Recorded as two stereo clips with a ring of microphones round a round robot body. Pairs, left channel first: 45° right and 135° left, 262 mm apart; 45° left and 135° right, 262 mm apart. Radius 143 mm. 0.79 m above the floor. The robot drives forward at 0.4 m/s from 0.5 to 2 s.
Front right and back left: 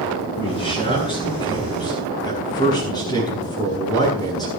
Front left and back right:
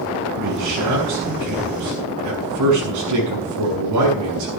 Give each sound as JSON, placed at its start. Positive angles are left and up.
{"t": 0.4, "sound": "a man speaking", "azimuth_deg": -115, "distance_m": 7.0}